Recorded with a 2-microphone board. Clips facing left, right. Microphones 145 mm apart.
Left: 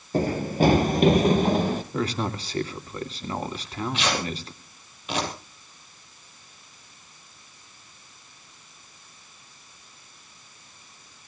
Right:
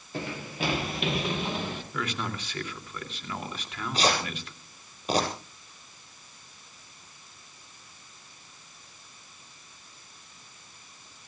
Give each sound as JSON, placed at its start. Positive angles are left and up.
{"t": 0.1, "sound": "running footsteps", "side_deg": 40, "distance_m": 1.5}
{"t": 1.9, "sound": "a man speaking", "side_deg": 35, "distance_m": 2.5}
{"t": 3.5, "sound": "tearing paper", "side_deg": -40, "distance_m": 7.5}